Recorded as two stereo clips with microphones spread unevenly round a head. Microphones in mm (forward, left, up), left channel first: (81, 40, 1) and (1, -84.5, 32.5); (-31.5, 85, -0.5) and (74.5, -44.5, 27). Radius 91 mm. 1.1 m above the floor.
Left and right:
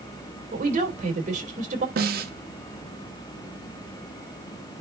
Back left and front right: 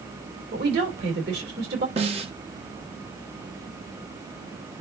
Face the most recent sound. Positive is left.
turn(degrees=-110)